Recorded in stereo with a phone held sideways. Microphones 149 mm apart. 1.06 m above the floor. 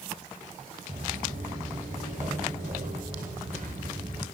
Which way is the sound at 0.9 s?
55° right (ahead or behind).